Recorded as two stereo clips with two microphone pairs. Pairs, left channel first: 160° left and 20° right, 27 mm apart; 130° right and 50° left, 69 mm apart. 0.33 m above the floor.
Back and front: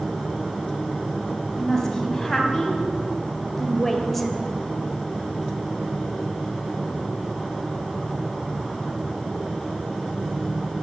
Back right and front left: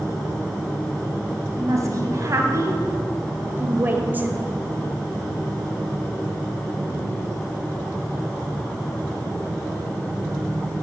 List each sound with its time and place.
1.6 s a woman speaking: 85° left, 3 m; by 4.3 s 80° left, 1.3 m